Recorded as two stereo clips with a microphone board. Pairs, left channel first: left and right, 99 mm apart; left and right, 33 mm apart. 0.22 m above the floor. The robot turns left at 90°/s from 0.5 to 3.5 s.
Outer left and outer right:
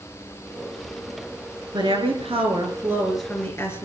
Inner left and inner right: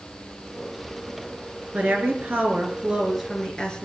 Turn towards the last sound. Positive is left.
turn(degrees=155)